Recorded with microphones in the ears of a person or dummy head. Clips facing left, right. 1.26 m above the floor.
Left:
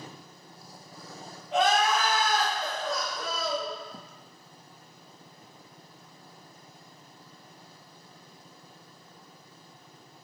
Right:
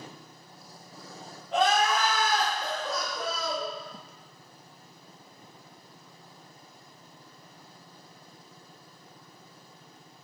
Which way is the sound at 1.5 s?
5° left (ahead or behind).